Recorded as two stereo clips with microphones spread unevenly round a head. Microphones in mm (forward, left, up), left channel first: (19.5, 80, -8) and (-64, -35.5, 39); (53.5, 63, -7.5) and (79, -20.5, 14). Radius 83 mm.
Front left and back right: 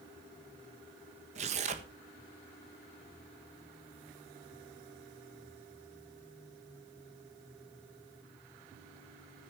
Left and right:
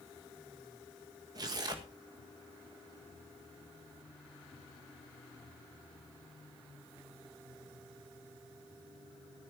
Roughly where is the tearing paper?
Right.